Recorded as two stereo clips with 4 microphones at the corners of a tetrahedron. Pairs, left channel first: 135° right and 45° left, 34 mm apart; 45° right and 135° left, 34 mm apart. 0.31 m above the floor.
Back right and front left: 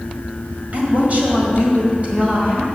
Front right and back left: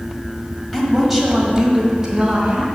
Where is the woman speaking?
40° left, 1.7 m; by 2.6 s 85° left, 2.0 m.